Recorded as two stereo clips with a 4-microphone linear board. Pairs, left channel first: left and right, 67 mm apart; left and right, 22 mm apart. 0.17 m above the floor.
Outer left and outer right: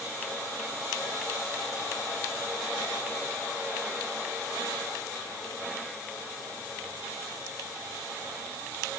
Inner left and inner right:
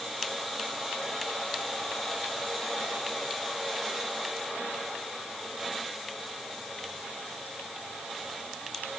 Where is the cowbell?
I don't hear a cowbell.